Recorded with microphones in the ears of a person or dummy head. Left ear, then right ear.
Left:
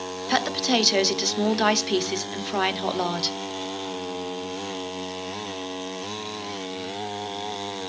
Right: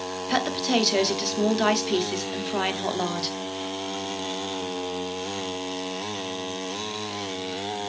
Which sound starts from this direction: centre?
A woman speaking, at 0.3 s.